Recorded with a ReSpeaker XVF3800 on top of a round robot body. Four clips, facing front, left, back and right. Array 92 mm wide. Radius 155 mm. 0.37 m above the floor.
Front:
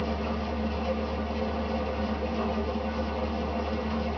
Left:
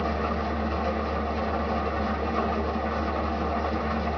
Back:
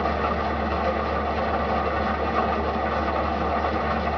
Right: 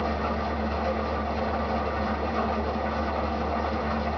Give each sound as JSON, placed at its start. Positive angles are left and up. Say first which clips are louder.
{"t": 0.0, "sound": "an engine running", "louder": "even, back 7 dB", "azimuth_deg": 180, "distance_m": 0.8}